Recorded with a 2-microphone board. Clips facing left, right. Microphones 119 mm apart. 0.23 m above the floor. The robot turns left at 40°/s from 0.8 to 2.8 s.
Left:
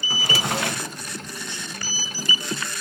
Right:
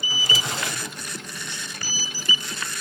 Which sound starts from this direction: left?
A drawer, at 0.1 s.